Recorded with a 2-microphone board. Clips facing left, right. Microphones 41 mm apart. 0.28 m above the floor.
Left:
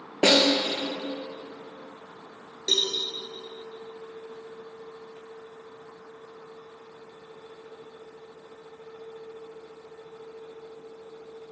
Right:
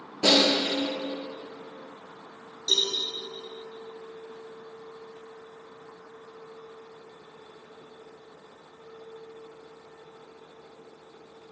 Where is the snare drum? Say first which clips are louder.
Left 2 dB; 65° left (ahead or behind), 1.3 m.